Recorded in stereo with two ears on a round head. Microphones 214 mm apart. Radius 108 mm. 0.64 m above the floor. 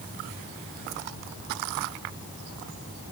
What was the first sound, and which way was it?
Only background noise.